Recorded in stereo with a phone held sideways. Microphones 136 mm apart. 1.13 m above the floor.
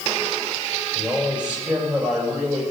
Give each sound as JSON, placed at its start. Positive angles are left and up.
{"t": 0.9, "sound": "a man speaking", "side_deg": -5, "distance_m": 5.0}